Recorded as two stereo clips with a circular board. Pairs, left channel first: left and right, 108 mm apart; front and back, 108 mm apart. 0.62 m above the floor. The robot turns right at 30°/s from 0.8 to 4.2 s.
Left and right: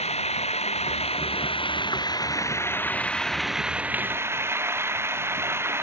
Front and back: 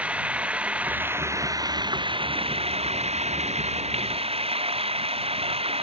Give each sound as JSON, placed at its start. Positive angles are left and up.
{"t": 0.0, "sound": "running water", "azimuth_deg": 100}